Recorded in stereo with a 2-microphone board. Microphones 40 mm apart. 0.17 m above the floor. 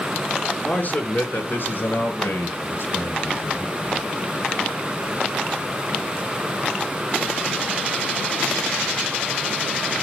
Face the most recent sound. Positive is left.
turn(degrees=75)  # may be behind; listen again after turning